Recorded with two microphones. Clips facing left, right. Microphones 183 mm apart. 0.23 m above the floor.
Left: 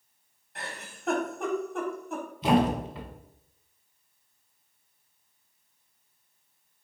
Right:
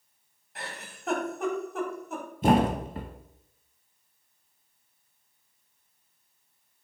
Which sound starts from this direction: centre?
A giggle, at 0.6 s.